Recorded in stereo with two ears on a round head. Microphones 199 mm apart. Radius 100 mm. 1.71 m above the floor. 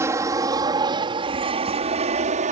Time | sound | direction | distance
0.0 | an aircraft | 15° right (ahead or behind) | ?